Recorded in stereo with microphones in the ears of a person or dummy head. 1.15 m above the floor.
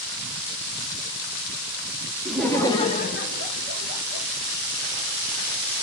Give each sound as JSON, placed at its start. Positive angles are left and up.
{"t": 2.2, "sound": "laughter", "side_deg": -5, "distance_m": 0.6}